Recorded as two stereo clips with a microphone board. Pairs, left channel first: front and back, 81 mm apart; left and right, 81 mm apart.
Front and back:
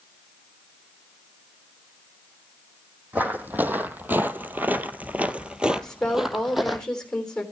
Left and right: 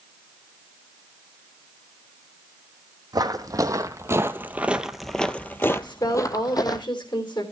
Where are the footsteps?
115° right, 1.3 m; by 6.8 s 90° left, 1.2 m.